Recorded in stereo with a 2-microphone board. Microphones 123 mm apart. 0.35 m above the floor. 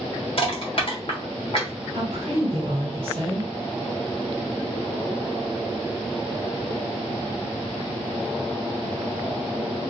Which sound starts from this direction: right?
A woman speaking, at 1.9 s.